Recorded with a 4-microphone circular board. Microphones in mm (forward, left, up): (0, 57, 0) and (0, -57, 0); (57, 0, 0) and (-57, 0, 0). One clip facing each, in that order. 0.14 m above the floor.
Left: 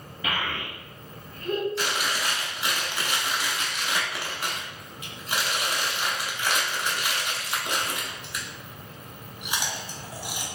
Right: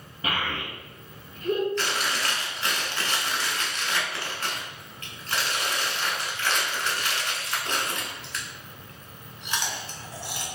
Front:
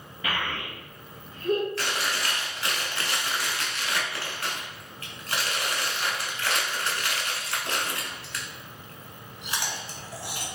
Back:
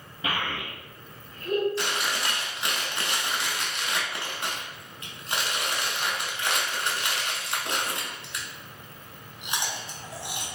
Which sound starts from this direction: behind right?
A child speaking, at 0.2 s.